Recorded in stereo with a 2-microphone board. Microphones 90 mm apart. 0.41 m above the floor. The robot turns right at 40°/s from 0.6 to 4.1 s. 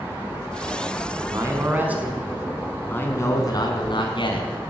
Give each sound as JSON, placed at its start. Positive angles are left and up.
{"t": 1.2, "sound": "a man speaking", "azimuth_deg": -45, "distance_m": 4.5}